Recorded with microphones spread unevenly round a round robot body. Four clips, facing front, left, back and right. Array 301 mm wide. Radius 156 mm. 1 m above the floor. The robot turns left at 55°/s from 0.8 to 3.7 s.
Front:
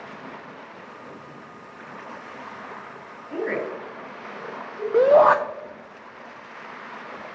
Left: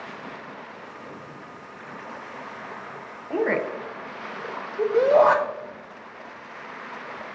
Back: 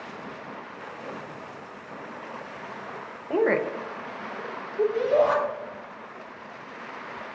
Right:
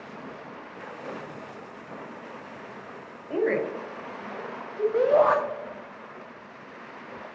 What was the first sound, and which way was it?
A woman speaking, 150° left.